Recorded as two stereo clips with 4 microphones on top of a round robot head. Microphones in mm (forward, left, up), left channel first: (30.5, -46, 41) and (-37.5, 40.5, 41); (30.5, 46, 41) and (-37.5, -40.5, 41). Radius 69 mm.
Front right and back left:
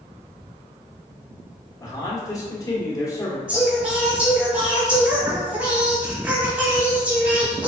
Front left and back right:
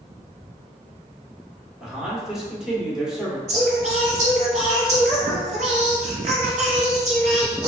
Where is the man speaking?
50° right, 1.4 m.